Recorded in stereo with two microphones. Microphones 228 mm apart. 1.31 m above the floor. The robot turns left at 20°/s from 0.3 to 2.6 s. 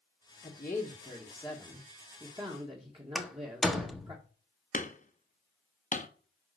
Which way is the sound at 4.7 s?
35° left (ahead or behind).